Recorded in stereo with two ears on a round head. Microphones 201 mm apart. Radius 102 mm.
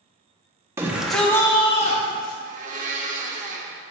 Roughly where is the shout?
Centre.